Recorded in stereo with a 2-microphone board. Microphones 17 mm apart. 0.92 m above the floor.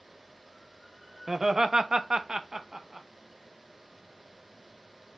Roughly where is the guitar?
I don't hear a guitar.